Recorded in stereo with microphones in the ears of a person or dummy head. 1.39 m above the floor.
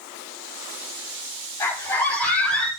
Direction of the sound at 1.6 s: 15° left (ahead or behind).